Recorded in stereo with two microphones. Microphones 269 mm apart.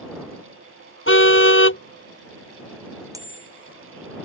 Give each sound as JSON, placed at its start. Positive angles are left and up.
{"t": 1.1, "sound": "a car horn", "side_deg": 50}
{"t": 3.1, "sound": "a bicycle bell", "side_deg": -15}